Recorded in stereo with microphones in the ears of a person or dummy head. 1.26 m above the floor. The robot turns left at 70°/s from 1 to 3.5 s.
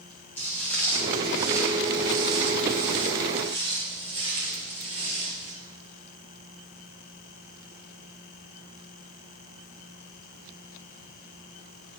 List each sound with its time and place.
0.4 s footsteps: 10° left (ahead or behind), 3 m; by 5.5 s 25° right (ahead or behind), 1.4 m